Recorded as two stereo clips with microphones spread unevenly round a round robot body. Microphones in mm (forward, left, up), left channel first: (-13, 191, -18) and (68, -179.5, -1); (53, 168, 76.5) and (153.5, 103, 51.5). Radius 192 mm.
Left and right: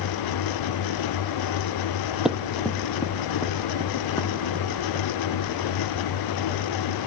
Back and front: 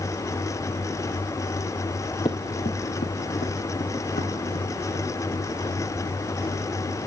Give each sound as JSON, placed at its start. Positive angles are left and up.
{"t": 2.2, "sound": "running footsteps", "azimuth_deg": -160, "distance_m": 0.5}